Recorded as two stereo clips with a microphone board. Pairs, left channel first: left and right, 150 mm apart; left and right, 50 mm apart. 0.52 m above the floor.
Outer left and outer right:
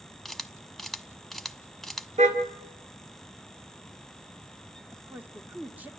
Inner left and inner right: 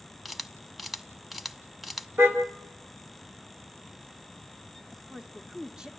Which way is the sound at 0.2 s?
Centre (ahead or behind).